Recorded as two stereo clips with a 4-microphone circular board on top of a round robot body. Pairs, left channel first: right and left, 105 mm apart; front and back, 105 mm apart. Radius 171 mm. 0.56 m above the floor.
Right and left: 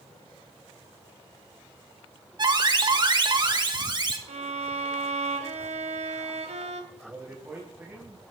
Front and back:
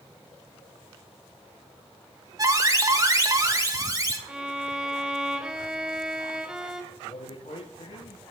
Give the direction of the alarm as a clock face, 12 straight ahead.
8 o'clock.